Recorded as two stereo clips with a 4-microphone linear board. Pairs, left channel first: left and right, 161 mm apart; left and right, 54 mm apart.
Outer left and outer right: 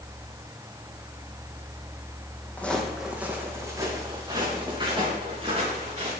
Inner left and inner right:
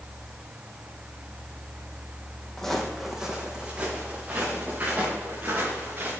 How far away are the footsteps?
About 1.7 m.